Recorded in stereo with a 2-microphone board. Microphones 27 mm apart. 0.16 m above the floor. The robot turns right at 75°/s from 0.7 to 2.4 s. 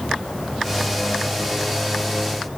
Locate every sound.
Only background noise.